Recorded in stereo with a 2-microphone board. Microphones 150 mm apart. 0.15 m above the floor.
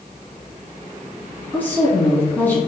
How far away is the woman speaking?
About 1.2 m.